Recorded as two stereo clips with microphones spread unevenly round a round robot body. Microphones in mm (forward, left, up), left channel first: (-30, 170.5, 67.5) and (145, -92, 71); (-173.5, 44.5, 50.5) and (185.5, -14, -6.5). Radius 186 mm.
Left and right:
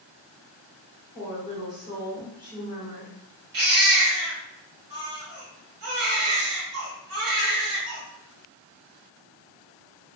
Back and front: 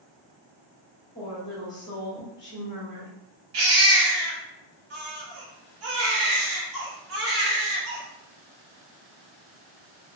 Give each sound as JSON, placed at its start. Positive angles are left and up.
{"t": 1.1, "sound": "a woman speaking", "azimuth_deg": -105, "distance_m": 1.1}
{"t": 3.5, "sound": "a baby crying", "azimuth_deg": -40, "distance_m": 1.1}